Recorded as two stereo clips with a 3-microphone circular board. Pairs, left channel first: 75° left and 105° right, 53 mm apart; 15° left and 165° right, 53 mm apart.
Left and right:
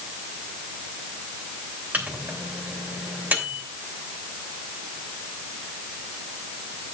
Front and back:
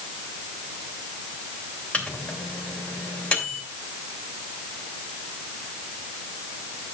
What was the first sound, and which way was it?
A microwave, 50° right.